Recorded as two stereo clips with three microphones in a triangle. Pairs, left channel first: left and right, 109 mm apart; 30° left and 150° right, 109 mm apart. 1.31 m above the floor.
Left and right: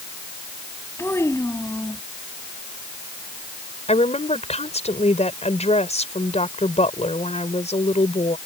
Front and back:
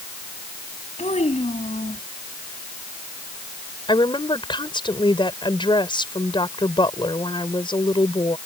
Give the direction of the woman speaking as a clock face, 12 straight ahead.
10 o'clock.